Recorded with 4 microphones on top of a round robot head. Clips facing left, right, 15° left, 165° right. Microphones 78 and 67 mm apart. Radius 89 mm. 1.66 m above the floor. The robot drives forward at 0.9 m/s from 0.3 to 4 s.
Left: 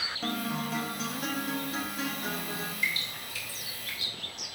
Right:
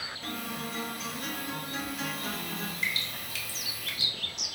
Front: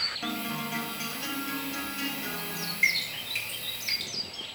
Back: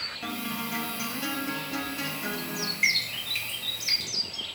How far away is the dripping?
About 1.5 m.